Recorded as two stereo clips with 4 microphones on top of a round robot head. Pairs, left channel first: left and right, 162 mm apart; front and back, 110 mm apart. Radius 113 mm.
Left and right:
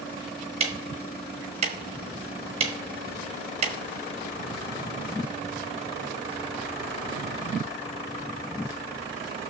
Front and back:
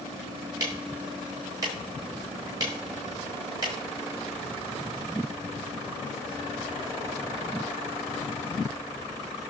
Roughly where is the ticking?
Behind right.